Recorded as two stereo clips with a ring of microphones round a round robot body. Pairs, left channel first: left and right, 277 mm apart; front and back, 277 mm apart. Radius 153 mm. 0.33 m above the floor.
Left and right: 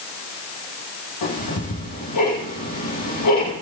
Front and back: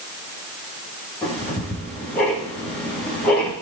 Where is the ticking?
85° left, 9.5 m.